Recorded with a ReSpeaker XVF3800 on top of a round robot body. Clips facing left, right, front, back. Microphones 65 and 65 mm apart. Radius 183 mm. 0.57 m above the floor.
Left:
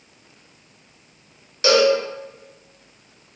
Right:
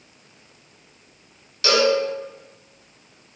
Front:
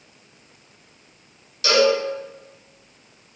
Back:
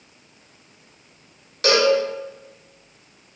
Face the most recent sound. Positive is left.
turn(degrees=150)